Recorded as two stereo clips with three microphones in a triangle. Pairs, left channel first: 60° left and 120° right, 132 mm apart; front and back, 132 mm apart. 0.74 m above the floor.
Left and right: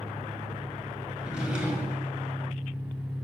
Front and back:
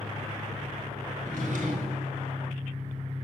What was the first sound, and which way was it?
An engine running, 170° right.